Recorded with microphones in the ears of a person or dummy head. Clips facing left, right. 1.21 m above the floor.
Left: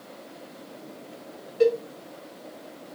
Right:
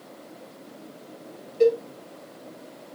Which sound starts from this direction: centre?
A cowbell, at 1.6 s.